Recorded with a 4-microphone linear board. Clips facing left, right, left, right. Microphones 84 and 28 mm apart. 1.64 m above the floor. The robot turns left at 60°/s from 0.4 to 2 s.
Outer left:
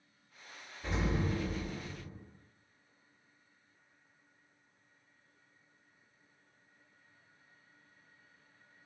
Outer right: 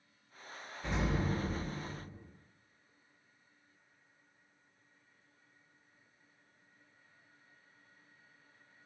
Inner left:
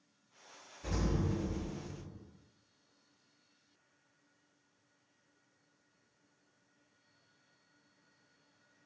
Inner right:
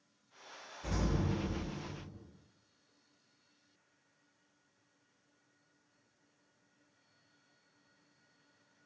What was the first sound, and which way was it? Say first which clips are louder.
An explosion: even, even; 170° right.